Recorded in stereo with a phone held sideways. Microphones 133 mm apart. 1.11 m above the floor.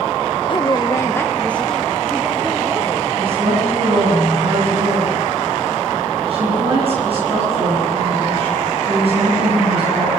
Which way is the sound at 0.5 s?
40° left (ahead or behind).